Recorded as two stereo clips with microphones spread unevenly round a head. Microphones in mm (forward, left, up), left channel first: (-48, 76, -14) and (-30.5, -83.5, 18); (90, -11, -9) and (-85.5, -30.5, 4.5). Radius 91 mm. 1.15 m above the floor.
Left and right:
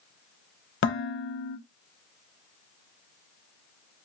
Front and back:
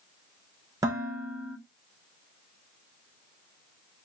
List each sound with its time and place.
0.8 s dishes clattering: 110° left, 1.2 m